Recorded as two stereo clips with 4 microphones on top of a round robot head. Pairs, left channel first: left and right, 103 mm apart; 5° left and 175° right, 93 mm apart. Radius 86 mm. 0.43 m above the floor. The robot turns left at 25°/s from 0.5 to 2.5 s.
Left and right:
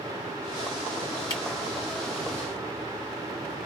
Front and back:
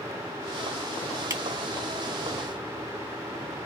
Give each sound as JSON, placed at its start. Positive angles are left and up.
{"t": 1.3, "sound": "a camera shutter", "azimuth_deg": 135, "distance_m": 1.7}